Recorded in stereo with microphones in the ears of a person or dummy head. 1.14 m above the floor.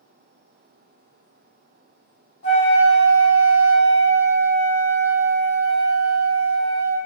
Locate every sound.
2.4 s a flute: 55° left (ahead or behind), 1.3 m